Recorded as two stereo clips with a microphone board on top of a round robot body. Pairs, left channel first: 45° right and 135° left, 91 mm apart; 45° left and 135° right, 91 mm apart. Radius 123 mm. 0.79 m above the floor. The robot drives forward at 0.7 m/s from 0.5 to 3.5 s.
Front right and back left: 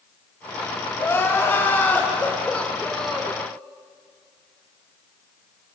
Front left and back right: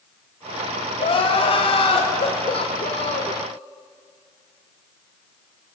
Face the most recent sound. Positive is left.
turn(degrees=50)